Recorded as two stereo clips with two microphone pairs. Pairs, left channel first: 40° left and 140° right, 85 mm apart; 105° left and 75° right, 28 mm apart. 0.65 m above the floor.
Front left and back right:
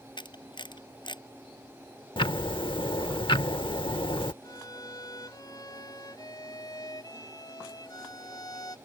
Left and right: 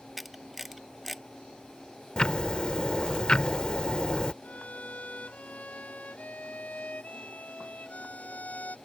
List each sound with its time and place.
0.2 s a camera shutter: 15° left
2.2 s ticking: 50° left
4.4 s a violin: 80° left